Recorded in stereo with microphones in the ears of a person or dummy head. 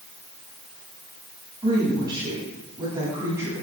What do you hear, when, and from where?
1.6 s a woman speaking: 25° right (ahead or behind), 8.5 m; by 3.6 s 15° right (ahead or behind), 8 m